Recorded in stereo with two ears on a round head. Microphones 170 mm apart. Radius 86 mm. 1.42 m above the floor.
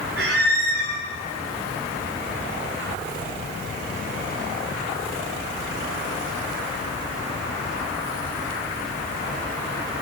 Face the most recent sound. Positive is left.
turn(degrees=-60)  # may be behind; listen again after turning